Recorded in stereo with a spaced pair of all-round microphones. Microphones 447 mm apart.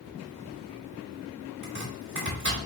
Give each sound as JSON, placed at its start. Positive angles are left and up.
{"t": 1.6, "sound": "chopping", "side_deg": -40, "distance_m": 2.0}